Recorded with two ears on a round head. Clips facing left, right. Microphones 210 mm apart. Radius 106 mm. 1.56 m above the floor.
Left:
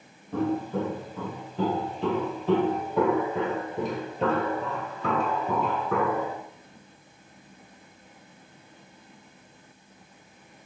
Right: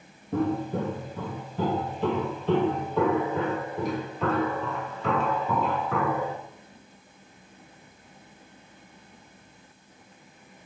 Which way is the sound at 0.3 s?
20° right (ahead or behind).